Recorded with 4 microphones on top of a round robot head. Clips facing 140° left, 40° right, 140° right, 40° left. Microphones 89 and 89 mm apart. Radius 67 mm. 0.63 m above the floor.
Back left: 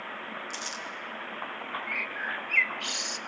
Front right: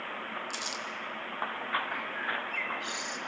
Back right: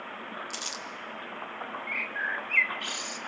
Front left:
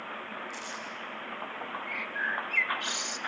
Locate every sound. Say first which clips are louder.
0.5 s crumpling: even, even; 120° right, 3 m
1.9 s a bird: even, even; 110° left, 0.7 m